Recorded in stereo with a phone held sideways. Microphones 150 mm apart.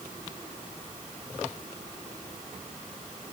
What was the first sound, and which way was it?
Only background noise.